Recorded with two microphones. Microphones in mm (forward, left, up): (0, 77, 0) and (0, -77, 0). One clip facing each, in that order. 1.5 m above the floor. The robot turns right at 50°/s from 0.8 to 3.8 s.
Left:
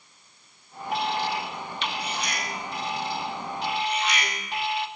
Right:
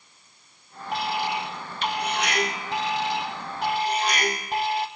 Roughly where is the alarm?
Behind.